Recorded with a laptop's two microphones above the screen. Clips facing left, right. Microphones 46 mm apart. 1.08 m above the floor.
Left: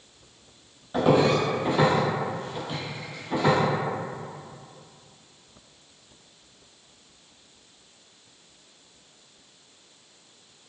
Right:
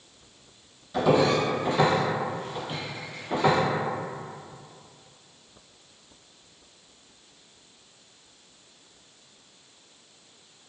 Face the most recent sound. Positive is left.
turn(degrees=-30)  # may be behind; listen again after turning